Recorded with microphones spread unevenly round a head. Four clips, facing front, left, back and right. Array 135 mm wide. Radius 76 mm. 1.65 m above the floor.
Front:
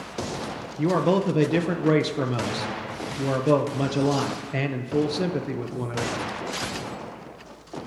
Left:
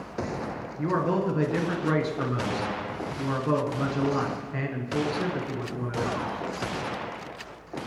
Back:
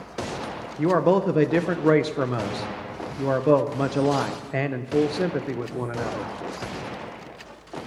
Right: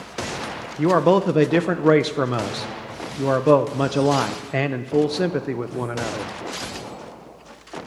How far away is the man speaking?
About 0.6 m.